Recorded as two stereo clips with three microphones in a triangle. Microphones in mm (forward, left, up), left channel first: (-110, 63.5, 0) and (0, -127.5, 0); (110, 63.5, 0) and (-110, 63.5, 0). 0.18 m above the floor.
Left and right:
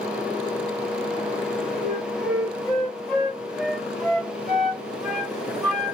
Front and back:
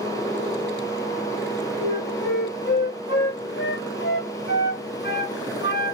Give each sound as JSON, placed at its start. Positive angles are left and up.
{"t": 1.8, "sound": "a flute", "azimuth_deg": 30, "distance_m": 2.0}